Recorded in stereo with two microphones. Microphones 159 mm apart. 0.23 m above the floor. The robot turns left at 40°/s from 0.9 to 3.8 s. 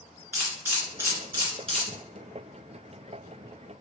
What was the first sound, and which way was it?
A camera shutter, 15° right (ahead or behind).